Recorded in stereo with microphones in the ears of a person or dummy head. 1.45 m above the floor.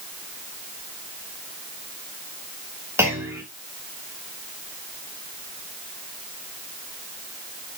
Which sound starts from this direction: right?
A clunk, at 3.0 s.